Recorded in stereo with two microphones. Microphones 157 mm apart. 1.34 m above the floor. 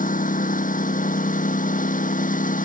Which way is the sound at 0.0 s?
60° left (ahead or behind).